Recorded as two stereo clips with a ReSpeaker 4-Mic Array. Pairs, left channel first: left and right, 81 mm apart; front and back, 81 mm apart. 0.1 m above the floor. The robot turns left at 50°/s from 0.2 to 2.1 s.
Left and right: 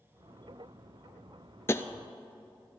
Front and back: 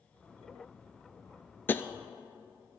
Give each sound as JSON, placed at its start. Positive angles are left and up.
{"t": 1.7, "sound": "tapping", "azimuth_deg": 50, "distance_m": 0.6}